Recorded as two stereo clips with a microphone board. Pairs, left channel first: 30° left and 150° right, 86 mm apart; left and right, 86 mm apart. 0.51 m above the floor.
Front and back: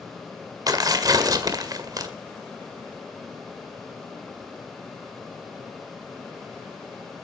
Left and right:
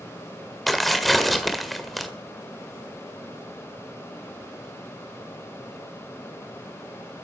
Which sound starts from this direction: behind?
Tearing paper, at 0.7 s.